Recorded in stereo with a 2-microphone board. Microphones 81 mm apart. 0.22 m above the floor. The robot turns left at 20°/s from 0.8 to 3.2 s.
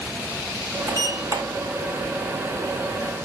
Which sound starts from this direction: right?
A sliding door, at 0.9 s.